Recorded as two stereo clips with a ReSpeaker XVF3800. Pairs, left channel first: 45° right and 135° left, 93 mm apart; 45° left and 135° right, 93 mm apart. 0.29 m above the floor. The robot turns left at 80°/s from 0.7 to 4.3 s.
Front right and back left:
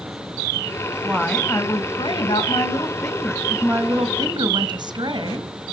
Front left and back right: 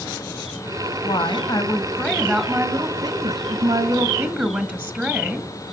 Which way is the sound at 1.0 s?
60° left.